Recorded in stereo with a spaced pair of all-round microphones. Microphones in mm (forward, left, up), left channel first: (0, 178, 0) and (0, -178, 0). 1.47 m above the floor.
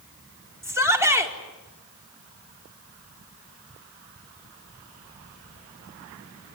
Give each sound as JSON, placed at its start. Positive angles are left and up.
{"t": 0.6, "sound": "a shout", "side_deg": -10, "distance_m": 5.0}